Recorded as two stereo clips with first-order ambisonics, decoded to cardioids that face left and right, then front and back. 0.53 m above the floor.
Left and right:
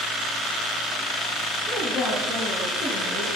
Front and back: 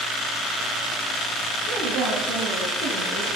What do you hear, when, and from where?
1.6 s a woman speaking: 150° left, 3.5 m; by 3.3 s 145° left, 5 m